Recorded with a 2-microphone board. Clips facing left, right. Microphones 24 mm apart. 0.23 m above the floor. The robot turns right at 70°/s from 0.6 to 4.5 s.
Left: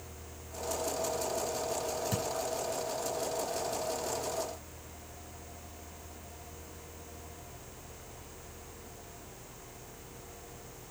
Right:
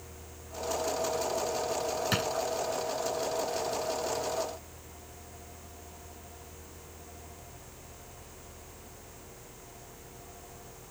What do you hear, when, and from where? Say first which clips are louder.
2.1 s a drawer: right 5 dB; 60° right (ahead or behind); by 2.3 s 70° right (ahead or behind)